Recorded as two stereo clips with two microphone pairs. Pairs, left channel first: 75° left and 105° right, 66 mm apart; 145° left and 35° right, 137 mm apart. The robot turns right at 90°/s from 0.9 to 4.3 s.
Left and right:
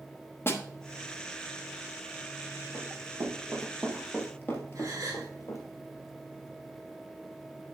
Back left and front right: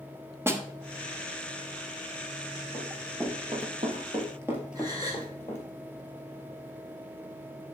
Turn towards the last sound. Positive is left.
turn(degrees=-95)